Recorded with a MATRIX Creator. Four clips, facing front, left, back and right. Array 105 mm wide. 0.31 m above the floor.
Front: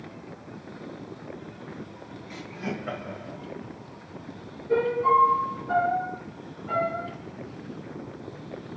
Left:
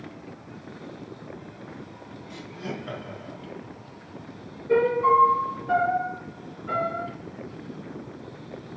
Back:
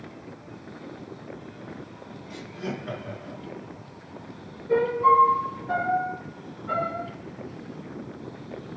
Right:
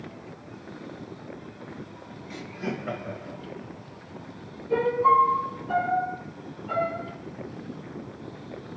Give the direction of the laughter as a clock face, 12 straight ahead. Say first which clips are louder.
Right 3 dB, even; 2 o'clock.